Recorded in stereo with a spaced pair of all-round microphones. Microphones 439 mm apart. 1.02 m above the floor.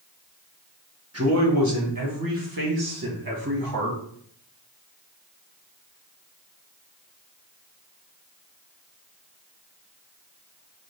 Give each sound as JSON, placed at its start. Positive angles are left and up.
{"t": 1.1, "sound": "a man speaking", "side_deg": -35, "distance_m": 1.5}